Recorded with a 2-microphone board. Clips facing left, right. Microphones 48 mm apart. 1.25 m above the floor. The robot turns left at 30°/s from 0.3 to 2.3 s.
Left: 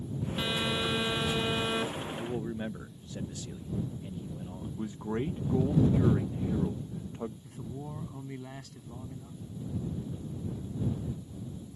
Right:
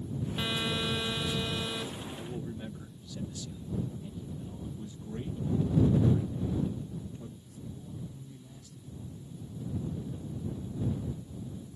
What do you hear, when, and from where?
0.4 s a phone buzzing: straight behind; by 2.1 s 130° left
2.2 s a man speaking: 40° left (ahead or behind); by 4.8 s 35° left (ahead or behind)
4.8 s a man speaking: 75° left (ahead or behind)
7.4 s a man speaking: 75° left (ahead or behind)